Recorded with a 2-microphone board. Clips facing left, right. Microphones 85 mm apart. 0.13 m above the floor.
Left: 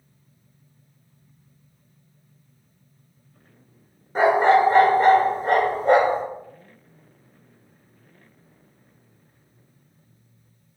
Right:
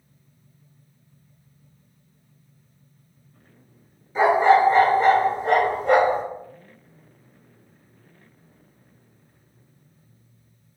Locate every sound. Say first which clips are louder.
4.2 s a dog barking: even; 50° left (ahead or behind), 0.8 m; by 6.2 s 35° left (ahead or behind), 1.3 m